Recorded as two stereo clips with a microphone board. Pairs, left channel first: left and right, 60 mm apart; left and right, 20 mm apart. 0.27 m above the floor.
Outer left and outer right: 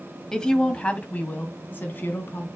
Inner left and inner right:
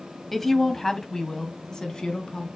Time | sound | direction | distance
0.3 | a woman speaking | 10° left (ahead or behind) | 1.4 m